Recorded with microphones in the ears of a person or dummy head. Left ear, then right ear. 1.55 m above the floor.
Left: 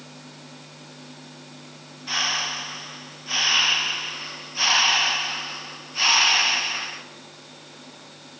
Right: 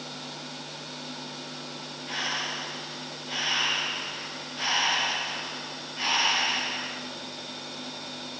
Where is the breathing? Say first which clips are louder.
Left 6 dB; 50° left (ahead or behind), 1.1 m.